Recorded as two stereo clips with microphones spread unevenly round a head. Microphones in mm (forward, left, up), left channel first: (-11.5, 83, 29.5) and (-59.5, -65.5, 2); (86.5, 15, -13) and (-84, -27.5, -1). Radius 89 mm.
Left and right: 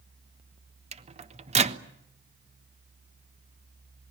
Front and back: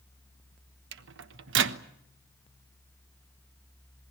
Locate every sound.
0.9 s a microwave: 160° right, 1.2 m